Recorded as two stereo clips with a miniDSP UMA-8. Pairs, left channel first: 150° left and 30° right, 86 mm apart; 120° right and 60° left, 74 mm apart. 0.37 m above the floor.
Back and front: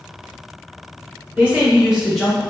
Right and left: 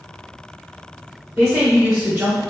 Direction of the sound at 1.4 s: Straight ahead.